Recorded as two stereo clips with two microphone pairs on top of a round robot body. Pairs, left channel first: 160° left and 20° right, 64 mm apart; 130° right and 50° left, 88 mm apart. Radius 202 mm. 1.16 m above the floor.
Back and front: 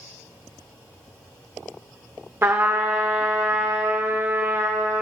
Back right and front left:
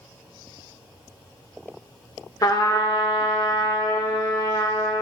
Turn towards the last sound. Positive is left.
turn(degrees=-80)